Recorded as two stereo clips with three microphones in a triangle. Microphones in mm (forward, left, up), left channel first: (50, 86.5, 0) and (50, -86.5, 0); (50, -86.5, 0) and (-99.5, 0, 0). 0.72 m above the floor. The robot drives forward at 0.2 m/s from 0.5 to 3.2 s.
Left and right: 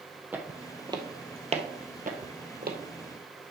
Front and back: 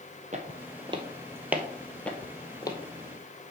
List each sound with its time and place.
0.3 s footsteps: 170° right, 1.5 m; by 2.8 s 95° right, 1.6 m